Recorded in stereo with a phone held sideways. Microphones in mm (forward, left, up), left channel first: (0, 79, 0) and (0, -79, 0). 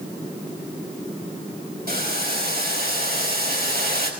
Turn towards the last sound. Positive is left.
turn(degrees=-80)